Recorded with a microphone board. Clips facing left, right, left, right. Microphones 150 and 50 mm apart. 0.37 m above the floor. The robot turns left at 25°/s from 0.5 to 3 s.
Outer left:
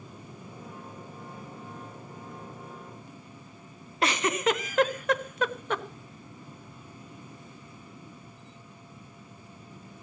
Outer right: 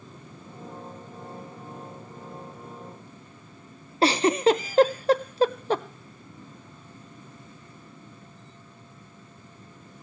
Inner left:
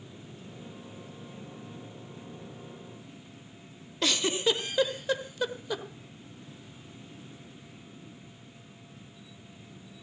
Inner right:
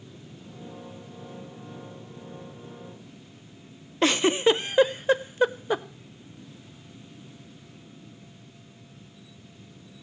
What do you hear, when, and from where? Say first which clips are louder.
4.0 s a giggle: outer right 7 dB, inner right 7 dB; 30° right (ahead or behind), 0.7 m